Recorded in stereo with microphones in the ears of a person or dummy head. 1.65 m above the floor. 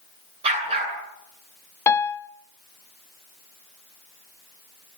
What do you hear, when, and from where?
0.4 s a dog barking: 30° right (ahead or behind), 8.5 m
1.9 s a piano: 15° left (ahead or behind), 0.5 m